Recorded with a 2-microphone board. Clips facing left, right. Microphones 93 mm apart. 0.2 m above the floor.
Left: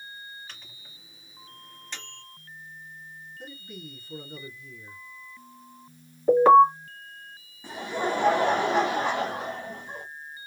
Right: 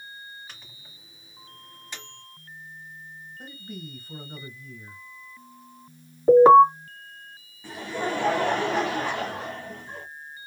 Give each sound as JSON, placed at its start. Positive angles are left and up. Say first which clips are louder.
{"t": 0.5, "sound": "a microwave", "louder": "even", "side_deg": -10, "distance_m": 1.3}
{"t": 3.4, "sound": "a man speaking", "louder": "right 3 dB", "side_deg": -45, "distance_m": 2.0}
{"t": 6.3, "sound": "an alarm", "louder": "right 3 dB", "side_deg": -20, "distance_m": 2.0}
{"t": 7.6, "sound": "laughter", "louder": "left 1 dB", "side_deg": 15, "distance_m": 1.3}